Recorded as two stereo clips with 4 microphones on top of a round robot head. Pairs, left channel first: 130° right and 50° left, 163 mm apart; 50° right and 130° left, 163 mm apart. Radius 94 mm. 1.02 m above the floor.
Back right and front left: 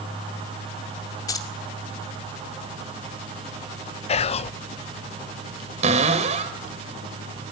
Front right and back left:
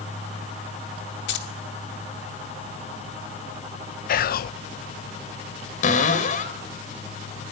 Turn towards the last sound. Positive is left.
turn(degrees=-5)